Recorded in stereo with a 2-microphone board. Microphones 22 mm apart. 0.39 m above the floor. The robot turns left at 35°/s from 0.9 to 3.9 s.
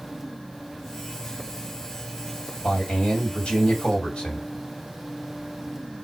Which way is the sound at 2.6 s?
85° left.